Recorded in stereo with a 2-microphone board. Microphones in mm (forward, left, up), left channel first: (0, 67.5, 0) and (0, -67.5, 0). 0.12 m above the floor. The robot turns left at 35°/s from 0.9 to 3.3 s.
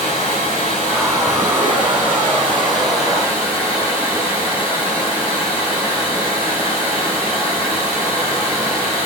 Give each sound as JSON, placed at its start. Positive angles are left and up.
{"t": 0.0, "sound": "running water", "azimuth_deg": 130, "distance_m": 5.5}